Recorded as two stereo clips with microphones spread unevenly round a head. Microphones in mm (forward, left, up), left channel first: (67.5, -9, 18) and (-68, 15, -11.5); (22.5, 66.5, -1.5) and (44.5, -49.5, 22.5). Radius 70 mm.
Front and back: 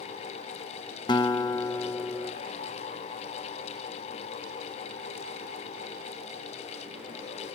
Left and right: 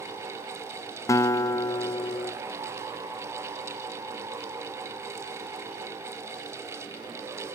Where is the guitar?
30° left, 0.6 m.